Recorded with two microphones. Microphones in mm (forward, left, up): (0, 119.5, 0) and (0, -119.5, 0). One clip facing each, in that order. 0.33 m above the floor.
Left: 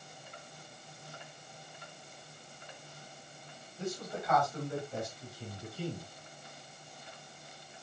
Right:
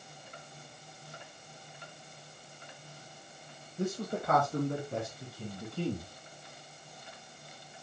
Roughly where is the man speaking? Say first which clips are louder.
Right 5 dB; right.